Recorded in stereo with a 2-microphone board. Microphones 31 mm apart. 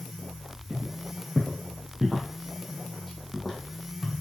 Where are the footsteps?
30° right (ahead or behind), 1.9 m; by 4.1 s 5° left (ahead or behind), 2.5 m.